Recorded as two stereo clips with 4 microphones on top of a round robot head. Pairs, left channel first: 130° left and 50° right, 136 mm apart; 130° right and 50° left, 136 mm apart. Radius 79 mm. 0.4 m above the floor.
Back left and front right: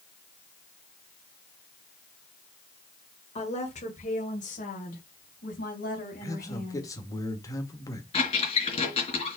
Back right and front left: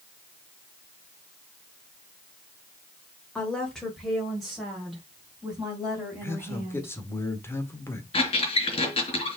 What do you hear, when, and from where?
3.4 s a woman speaking: 150° left, 1.9 m; by 6.9 s 130° left, 3.5 m
6.2 s a man speaking: 170° left, 1.6 m
8.1 s a squeak: straight behind, 3.5 m